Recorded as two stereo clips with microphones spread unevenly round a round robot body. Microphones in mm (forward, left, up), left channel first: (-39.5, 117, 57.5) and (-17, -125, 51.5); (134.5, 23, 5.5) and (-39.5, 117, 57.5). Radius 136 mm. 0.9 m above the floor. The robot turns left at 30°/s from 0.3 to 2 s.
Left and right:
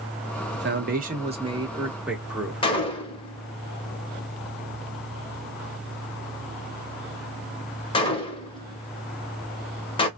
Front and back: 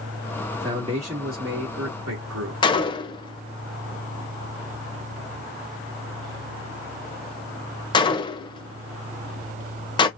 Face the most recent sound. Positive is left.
turn(degrees=45)